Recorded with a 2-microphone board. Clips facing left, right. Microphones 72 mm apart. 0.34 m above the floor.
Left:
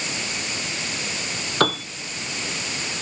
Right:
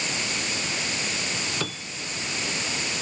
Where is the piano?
65° left (ahead or behind).